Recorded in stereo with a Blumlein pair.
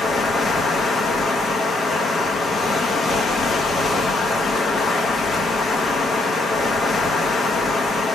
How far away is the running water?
About 1.0 m.